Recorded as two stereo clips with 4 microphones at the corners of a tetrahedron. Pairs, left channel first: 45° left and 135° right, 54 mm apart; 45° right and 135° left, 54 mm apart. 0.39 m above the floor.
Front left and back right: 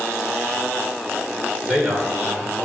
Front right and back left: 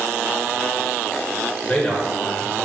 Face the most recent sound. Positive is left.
turn(degrees=-80)